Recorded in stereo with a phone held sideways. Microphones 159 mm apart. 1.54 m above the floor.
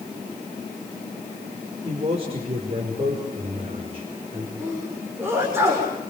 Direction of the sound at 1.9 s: 40° right (ahead or behind).